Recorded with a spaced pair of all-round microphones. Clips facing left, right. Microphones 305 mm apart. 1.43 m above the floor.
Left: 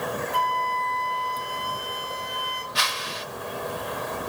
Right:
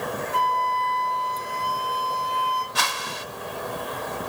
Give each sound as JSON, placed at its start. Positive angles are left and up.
{"t": 0.3, "sound": "a flute", "side_deg": 20, "distance_m": 1.8}
{"t": 2.8, "sound": "a whoosh", "side_deg": -60, "distance_m": 0.9}